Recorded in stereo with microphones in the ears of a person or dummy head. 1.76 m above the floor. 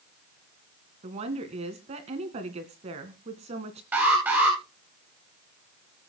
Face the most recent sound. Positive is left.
turn(degrees=-10)  # may be behind; listen again after turning